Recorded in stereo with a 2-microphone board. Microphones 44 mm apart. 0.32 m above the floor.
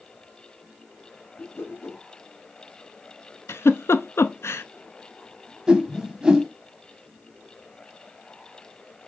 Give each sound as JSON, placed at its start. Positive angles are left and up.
{"t": 1.4, "sound": "a whoosh", "side_deg": 65, "distance_m": 2.0}
{"t": 3.5, "sound": "a giggle", "side_deg": 80, "distance_m": 0.6}
{"t": 5.7, "sound": "a whoosh", "side_deg": -15, "distance_m": 0.8}